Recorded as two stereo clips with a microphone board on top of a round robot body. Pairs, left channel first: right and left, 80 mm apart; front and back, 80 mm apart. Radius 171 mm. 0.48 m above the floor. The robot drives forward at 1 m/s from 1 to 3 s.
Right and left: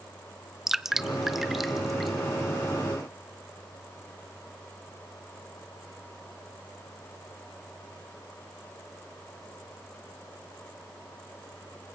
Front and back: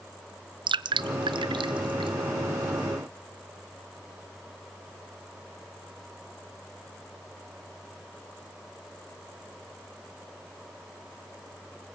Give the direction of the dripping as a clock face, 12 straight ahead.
6 o'clock.